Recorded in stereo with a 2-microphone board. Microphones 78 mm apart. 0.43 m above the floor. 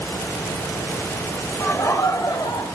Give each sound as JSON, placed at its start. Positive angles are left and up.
{"t": 1.6, "sound": "laughter", "side_deg": 30, "distance_m": 1.5}